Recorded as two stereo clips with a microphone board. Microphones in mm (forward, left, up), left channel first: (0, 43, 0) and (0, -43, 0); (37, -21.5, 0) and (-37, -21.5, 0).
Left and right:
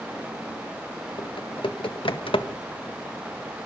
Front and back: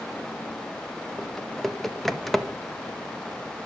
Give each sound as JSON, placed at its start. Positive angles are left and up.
{"t": 1.2, "sound": "typing on a keyboard", "azimuth_deg": 85, "distance_m": 1.3}